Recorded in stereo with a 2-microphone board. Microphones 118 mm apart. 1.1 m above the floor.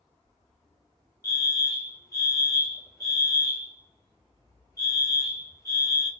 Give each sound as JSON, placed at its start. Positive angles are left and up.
{"t": 1.2, "sound": "a fire alarm", "side_deg": 30, "distance_m": 1.3}